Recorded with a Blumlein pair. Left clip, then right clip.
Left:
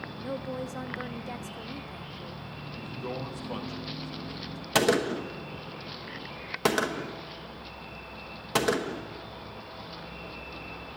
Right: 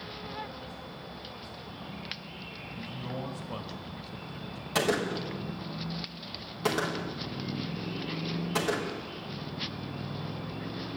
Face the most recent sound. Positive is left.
turn(degrees=25)